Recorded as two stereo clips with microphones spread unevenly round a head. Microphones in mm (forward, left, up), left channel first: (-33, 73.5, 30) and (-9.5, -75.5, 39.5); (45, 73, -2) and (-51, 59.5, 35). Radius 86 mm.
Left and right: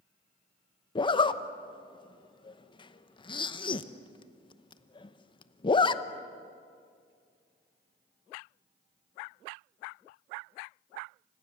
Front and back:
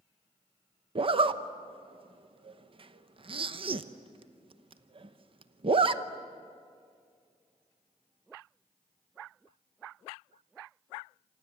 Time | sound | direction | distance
0.9 | a zipper | 150° left | 1.0 m